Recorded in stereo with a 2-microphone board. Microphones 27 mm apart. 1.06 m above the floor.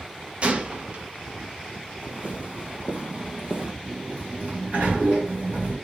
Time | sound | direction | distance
0.4 | a gunshot | 40° right (ahead or behind) | 1.1 m
2.0 | footsteps | 45° right (ahead or behind) | 2 m
3.8 | a sliding door | 50° right (ahead or behind) | 2 m